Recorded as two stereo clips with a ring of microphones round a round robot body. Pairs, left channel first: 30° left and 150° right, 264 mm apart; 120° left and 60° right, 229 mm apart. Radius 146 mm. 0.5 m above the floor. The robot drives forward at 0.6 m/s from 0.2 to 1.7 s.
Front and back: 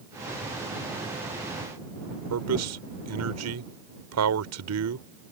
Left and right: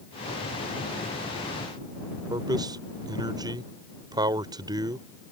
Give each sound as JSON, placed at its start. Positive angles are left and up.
{"t": 2.3, "sound": "a man speaking", "azimuth_deg": -135}